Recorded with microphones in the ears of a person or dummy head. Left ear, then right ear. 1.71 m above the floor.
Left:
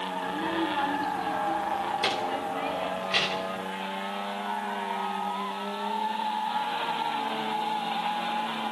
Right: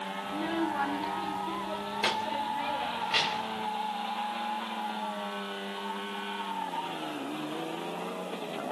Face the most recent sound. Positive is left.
turn(degrees=0)  # may be behind; listen again after turning